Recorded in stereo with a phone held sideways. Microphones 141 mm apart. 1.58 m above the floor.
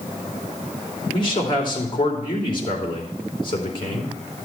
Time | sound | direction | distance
1.1 | a man speaking | 35° left (ahead or behind) | 3 m